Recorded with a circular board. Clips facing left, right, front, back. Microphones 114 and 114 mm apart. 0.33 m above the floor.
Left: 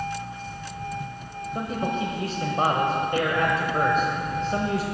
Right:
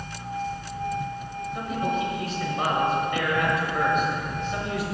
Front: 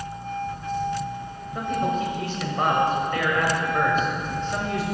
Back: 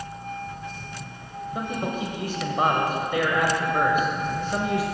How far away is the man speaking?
About 1.1 m.